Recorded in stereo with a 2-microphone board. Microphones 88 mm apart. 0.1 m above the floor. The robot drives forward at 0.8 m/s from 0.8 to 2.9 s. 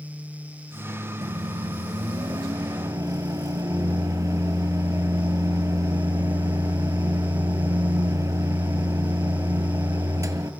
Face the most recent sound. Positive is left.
turn(degrees=-35)  # may be behind; listen again after turning